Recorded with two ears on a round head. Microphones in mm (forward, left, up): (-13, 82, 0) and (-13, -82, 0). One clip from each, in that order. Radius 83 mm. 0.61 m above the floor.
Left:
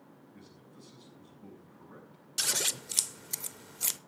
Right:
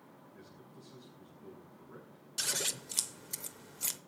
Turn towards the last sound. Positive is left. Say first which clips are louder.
# left 4 dB
turn(degrees=15)  # may be behind; listen again after turning